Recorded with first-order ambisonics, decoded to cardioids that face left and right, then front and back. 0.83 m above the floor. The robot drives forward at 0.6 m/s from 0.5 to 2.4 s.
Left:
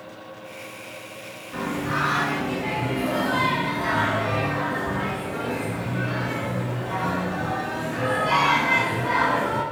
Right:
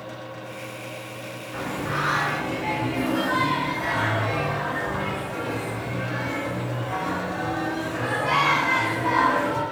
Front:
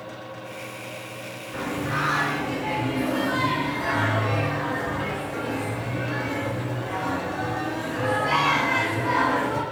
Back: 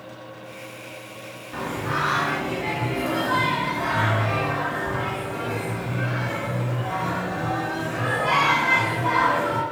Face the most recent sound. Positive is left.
turn(degrees=180)